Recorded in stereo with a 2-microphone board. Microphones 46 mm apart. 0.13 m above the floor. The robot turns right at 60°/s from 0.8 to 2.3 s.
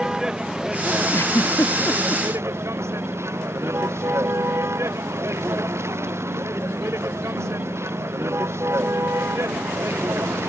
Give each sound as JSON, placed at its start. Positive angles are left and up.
{"t": 0.0, "sound": "a vehicle", "azimuth_deg": -165}
{"t": 1.1, "sound": "a giggle", "side_deg": 85}